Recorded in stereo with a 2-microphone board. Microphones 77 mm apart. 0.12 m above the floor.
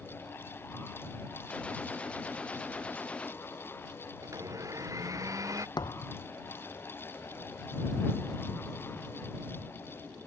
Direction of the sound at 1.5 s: 15° left (ahead or behind).